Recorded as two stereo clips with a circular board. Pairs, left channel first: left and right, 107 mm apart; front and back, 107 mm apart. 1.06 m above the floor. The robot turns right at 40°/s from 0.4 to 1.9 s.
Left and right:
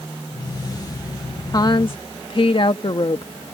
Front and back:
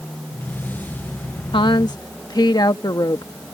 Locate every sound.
1.5 s a woman speaking: 35° left; by 3.3 s 50° left